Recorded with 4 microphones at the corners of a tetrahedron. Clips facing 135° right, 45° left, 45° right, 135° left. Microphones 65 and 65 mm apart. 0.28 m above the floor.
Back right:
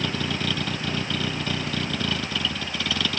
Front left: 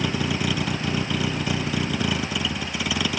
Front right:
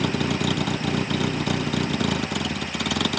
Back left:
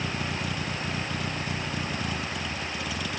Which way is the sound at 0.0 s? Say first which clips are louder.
Front left 3 dB, front right 8 dB; 35° right.